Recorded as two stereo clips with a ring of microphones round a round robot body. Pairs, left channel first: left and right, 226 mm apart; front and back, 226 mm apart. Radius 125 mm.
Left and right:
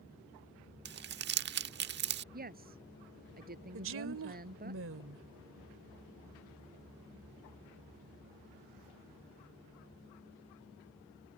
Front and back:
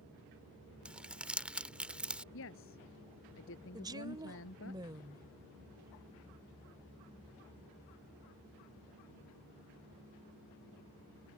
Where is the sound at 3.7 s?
105° right.